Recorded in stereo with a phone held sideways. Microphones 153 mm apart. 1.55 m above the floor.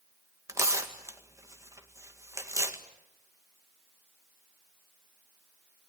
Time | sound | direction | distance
0.5 | tearing paper | 20° right (ahead or behind) | 1.9 m